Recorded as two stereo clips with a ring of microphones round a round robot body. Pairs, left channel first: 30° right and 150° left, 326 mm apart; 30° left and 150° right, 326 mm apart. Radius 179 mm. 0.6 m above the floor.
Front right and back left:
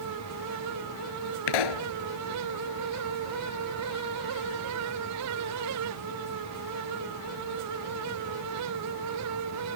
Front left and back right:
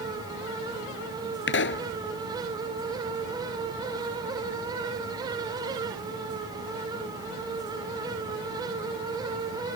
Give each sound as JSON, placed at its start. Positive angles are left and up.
{"t": 1.5, "sound": "a pop", "azimuth_deg": -30}